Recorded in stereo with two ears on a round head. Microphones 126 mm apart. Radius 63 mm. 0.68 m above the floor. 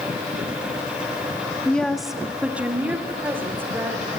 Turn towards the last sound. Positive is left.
turn(degrees=-15)  # may be behind; listen again after turning